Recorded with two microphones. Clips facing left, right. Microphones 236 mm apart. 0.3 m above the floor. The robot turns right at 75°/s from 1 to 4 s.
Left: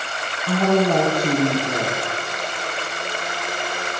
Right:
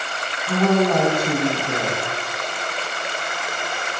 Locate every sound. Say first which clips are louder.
0.5 s a woman speaking: even; 65° left, 4 m; by 2.0 s 140° left, 4 m